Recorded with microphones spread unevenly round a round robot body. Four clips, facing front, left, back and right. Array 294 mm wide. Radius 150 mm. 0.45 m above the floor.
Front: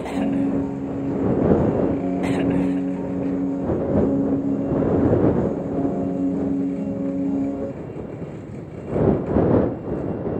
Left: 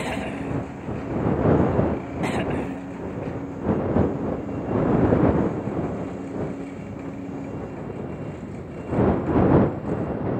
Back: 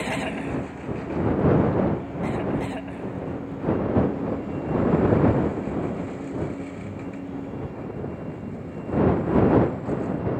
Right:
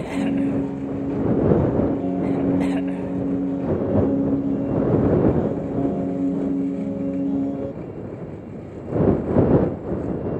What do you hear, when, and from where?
0.1 s a piano: 45° right